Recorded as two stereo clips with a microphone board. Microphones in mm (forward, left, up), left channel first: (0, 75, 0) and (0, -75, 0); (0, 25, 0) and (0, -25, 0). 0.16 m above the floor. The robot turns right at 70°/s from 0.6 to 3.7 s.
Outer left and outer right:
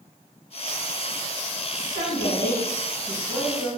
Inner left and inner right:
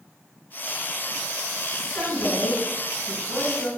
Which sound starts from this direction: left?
A woman speaking, at 1.7 s.